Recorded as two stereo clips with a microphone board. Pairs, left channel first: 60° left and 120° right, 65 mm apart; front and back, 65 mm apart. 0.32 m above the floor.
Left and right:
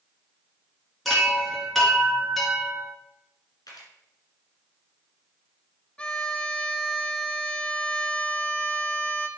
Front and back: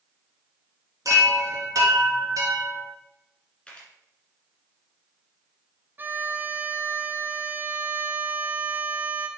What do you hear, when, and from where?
1.1 s a chime: 150° left, 1.8 m
3.7 s a camera shutter: 75° left, 1.9 m
6.0 s a violin: 130° left, 0.7 m